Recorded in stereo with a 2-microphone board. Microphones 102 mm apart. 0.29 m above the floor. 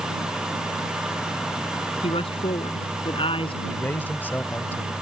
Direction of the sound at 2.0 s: 65° left (ahead or behind).